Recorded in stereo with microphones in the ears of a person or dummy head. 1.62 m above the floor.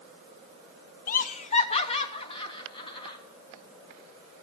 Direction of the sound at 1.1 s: 55° left (ahead or behind).